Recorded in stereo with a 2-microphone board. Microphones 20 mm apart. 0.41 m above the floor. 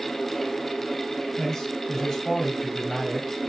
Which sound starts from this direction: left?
A man speaking, at 1.4 s.